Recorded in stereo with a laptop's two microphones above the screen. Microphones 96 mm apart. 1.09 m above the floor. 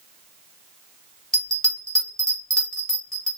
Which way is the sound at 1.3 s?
10° left (ahead or behind).